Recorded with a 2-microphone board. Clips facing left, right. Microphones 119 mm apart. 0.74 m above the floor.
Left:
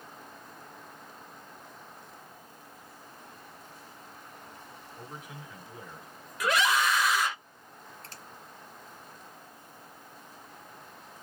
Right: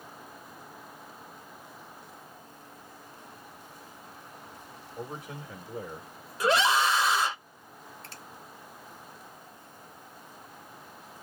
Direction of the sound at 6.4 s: 30° right (ahead or behind).